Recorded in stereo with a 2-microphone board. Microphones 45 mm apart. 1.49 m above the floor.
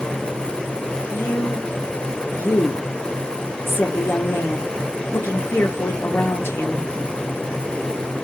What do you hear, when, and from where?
1.1 s a woman speaking: 55° left (ahead or behind), 1.0 m